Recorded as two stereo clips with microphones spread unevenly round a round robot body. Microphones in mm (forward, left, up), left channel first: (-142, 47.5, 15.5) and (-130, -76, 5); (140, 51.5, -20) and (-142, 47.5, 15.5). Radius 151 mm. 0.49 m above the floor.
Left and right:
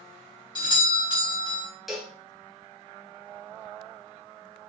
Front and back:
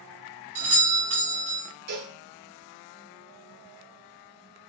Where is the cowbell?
170° right, 1.0 m.